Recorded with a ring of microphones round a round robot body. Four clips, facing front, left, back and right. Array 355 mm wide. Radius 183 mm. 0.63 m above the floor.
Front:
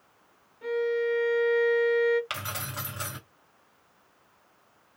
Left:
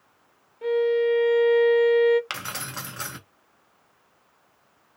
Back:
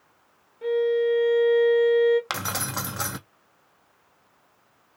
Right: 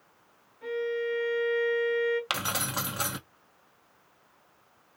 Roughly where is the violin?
Behind left.